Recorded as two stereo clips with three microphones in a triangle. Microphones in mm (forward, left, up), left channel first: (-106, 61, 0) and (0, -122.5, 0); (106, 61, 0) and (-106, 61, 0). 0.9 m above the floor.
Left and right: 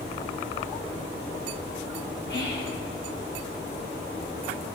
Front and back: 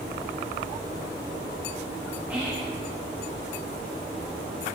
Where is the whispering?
95° left, 1.3 m.